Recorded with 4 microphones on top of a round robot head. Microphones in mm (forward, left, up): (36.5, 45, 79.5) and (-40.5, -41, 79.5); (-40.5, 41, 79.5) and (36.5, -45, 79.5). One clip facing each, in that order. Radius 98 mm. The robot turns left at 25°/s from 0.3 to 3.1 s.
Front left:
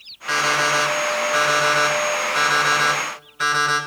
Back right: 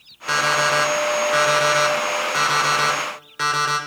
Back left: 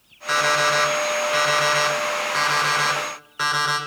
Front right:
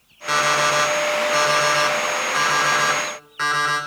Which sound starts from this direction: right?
An alarm clock, at 0.3 s.